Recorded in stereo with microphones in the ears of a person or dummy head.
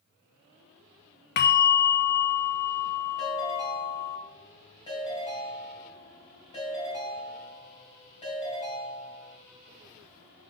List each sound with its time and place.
1.4 s a bell: 45° left (ahead or behind), 0.6 m
3.2 s a ringtone: 30° left (ahead or behind), 4 m